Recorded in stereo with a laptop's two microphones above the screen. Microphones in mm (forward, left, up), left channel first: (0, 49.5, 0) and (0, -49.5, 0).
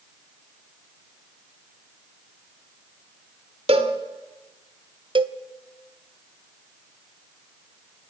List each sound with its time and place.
3.7 s a cowbell: 85° right, 2.5 m
5.2 s a cowbell: 55° right (ahead or behind), 0.9 m